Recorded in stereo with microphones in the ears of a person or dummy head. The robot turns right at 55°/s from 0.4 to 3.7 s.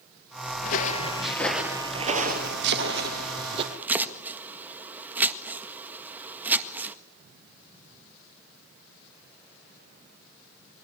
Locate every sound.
0.6 s footsteps: 45° left (ahead or behind), 2 m; by 3.6 s 30° right (ahead or behind), 3.5 m
2.6 s chopping: 65° right (ahead or behind), 1.7 m; by 7.0 s 10° right (ahead or behind), 1.7 m